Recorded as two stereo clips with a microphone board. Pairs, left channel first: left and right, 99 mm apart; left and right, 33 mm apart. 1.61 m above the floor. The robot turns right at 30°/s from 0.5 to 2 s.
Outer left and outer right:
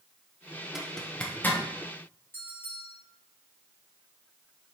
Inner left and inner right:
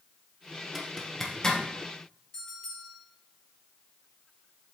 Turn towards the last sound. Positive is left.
turn(degrees=20)  # may be behind; listen again after turning